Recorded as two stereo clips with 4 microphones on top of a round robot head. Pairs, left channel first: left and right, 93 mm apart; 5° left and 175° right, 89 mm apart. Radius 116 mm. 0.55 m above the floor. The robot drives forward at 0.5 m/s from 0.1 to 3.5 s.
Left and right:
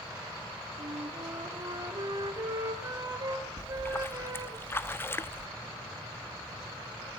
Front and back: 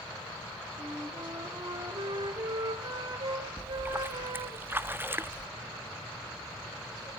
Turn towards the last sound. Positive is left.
turn(degrees=135)